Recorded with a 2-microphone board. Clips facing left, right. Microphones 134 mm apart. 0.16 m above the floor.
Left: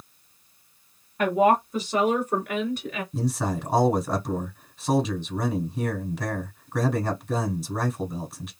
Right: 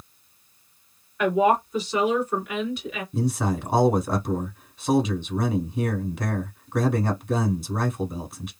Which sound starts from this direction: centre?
A man speaking, at 3.1 s.